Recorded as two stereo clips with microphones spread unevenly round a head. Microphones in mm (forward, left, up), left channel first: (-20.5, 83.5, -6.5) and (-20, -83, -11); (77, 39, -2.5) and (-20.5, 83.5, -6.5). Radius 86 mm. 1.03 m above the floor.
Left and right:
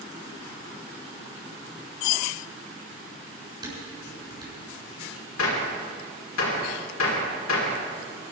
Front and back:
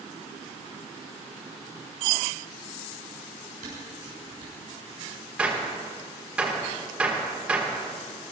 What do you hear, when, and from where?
3.6 s dishes clattering: 155° right, 7 m
5.4 s a gunshot: 75° left, 3.5 m